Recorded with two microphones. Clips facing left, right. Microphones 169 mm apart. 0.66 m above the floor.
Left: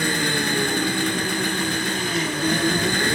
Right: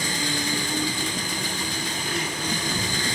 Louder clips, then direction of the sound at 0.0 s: Left 5 dB; 65° left (ahead or behind).